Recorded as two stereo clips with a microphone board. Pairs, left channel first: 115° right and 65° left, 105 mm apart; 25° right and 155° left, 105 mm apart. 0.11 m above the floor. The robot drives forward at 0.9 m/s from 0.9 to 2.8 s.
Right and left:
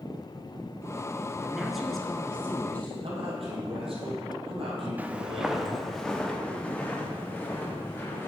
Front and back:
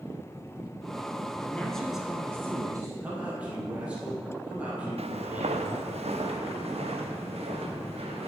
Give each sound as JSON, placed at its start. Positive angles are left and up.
{"t": 1.4, "sound": "a woman speaking", "azimuth_deg": 0, "distance_m": 1.1}
{"t": 3.0, "sound": "a man speaking", "azimuth_deg": 80, "distance_m": 3.5}
{"t": 5.0, "sound": "footsteps", "azimuth_deg": 140, "distance_m": 0.9}